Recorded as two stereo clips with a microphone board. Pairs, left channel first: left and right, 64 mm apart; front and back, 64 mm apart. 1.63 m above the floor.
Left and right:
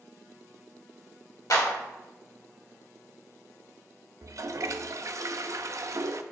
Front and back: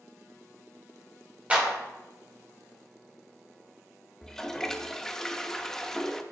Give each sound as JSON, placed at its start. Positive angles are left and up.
{"t": 1.5, "sound": "a clap", "azimuth_deg": 110, "distance_m": 2.0}
{"t": 4.2, "sound": "a toilet flushing", "azimuth_deg": -80, "distance_m": 0.5}